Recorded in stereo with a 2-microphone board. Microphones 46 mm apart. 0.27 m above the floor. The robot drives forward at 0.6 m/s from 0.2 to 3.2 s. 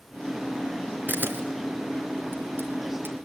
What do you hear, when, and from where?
1.1 s a camera shutter: 40° right (ahead or behind), 3.5 m; by 3.2 s 55° right (ahead or behind), 3 m